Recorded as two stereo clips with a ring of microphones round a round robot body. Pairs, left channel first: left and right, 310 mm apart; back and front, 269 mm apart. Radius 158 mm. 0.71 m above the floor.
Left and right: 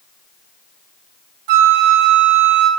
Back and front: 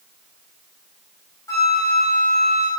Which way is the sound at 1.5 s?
100° right.